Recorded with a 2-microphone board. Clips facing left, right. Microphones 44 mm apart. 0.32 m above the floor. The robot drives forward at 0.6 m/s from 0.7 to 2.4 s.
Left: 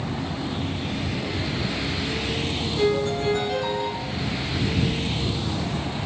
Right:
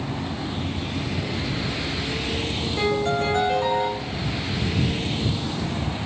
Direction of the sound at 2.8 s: 55° right (ahead or behind).